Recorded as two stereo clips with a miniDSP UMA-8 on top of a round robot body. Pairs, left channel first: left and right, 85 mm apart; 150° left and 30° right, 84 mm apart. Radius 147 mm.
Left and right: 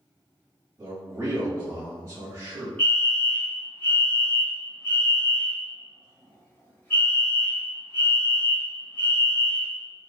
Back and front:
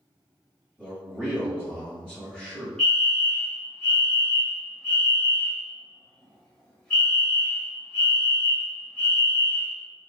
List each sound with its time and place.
0.8 s a man speaking: 140° right, 1.4 m
2.8 s a fire alarm: 90° left, 1.6 m